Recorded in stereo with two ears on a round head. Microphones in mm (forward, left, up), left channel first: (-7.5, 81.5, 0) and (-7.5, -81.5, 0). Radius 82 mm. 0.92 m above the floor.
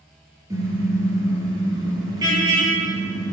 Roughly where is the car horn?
Centre.